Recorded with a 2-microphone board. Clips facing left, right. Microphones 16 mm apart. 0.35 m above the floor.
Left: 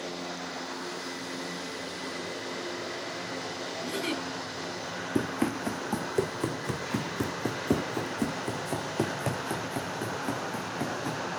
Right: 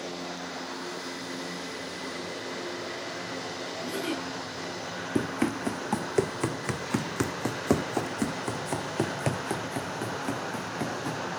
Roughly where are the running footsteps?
Right.